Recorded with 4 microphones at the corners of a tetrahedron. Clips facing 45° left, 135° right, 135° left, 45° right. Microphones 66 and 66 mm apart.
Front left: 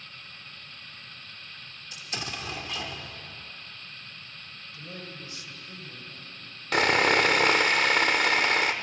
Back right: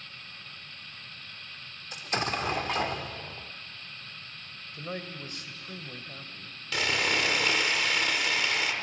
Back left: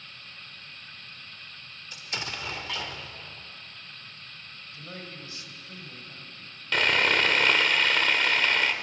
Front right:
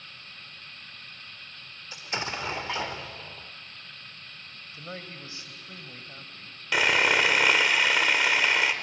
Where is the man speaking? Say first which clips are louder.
Back right 5 dB, front right 2 dB; 105° right, 2.0 m.